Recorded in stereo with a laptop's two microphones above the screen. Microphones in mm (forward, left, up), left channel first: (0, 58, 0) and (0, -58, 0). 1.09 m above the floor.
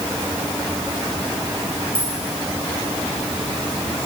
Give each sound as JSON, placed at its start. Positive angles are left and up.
{"t": 1.9, "sound": "a dropped coin", "side_deg": -10, "distance_m": 5.5}